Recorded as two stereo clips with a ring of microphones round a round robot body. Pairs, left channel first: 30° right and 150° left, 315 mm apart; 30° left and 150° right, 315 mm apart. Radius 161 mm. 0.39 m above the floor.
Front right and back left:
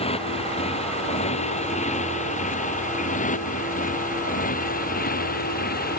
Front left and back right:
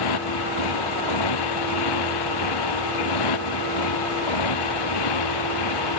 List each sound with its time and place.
0.0 s a motorcycle: 45° left; by 6.0 s 35° left